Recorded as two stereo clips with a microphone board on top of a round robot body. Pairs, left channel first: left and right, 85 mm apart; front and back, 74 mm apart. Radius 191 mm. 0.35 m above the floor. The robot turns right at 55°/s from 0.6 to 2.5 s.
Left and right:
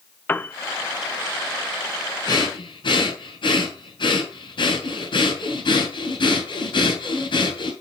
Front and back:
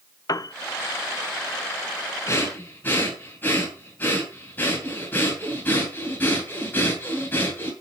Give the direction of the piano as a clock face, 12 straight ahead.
11 o'clock.